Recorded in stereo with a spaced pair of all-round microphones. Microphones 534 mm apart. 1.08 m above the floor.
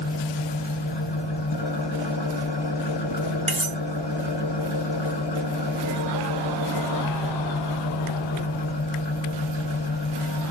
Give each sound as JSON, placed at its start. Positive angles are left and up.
{"t": 0.0, "sound": "an engine running", "side_deg": 50, "distance_m": 0.7}
{"t": 3.5, "sound": "cutlery clinking", "side_deg": -45, "distance_m": 0.8}